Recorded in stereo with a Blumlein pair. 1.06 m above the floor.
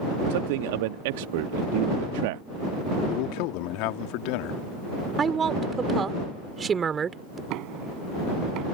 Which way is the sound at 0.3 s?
50° right.